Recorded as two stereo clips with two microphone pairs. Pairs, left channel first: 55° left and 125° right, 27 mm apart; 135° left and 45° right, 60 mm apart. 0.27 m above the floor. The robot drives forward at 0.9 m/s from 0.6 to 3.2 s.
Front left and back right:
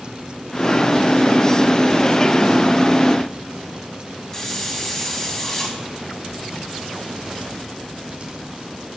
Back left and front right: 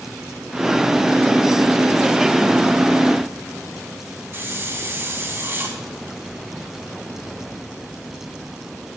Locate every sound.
4.3 s a hiss: 15° right, 2.0 m